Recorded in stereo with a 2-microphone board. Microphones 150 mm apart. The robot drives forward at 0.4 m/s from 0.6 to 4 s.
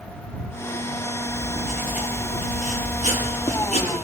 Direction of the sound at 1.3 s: 55° left (ahead or behind).